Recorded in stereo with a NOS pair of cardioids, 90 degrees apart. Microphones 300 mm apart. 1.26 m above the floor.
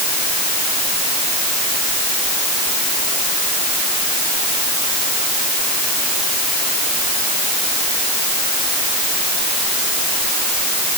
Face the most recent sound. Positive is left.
No sound to turn to.